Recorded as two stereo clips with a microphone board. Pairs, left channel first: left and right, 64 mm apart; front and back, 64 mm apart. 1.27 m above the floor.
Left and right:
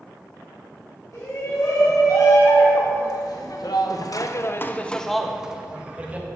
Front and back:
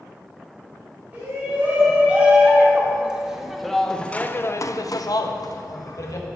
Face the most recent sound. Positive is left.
turn(degrees=-25)